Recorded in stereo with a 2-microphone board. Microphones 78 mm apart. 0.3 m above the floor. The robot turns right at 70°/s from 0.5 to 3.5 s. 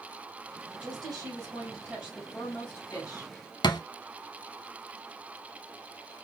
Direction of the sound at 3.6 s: 70° left (ahead or behind).